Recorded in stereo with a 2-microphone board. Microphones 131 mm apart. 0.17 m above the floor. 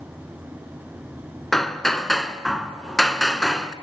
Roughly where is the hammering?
Centre.